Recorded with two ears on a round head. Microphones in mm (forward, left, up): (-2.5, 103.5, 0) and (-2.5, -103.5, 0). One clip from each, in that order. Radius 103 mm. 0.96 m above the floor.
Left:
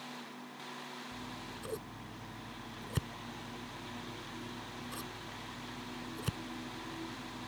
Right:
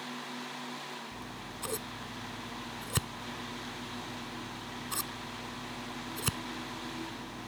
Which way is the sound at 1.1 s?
50° right (ahead or behind).